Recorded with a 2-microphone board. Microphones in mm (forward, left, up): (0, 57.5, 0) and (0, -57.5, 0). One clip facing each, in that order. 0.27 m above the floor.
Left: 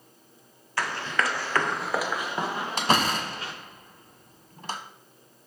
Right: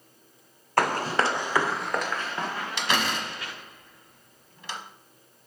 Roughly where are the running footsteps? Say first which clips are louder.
Right 5 dB; right.